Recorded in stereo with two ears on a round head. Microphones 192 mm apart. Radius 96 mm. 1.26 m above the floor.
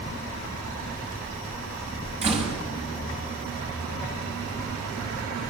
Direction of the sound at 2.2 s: 30° right (ahead or behind).